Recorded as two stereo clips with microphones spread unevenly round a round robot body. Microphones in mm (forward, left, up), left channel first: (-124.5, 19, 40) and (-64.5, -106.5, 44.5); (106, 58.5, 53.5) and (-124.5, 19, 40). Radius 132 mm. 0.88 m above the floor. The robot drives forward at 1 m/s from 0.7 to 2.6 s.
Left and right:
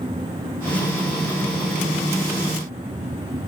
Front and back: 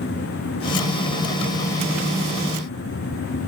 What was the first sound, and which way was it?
Only background noise.